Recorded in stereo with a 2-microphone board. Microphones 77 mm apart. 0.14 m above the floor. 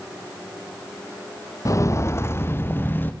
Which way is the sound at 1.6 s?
45° left (ahead or behind).